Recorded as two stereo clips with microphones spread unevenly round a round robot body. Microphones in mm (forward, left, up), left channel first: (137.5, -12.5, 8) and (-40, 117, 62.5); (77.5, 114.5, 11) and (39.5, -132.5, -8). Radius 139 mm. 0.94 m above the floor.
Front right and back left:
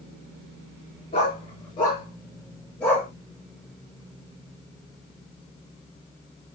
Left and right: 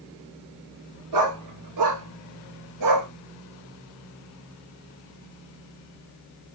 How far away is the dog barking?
About 6 m.